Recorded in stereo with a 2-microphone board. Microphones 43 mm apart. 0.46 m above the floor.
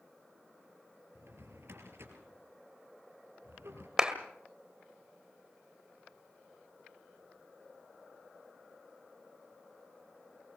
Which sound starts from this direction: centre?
A clap, at 4.0 s.